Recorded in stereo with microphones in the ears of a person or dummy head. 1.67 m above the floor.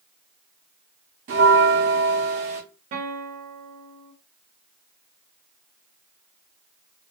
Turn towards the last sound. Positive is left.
turn(degrees=-45)  # may be behind; listen again after turning